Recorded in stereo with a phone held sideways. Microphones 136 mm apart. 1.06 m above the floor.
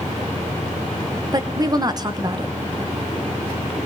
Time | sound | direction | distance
1.3 | a woman speaking | 30° right (ahead or behind) | 0.7 m